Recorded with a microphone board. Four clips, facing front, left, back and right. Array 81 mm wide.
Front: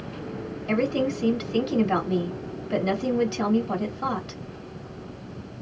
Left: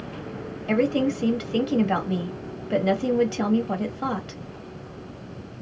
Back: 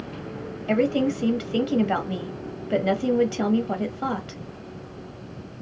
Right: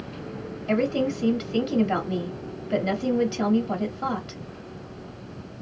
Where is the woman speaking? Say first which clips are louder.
Left 2 dB, back 3 dB; 155° left, 1.1 m.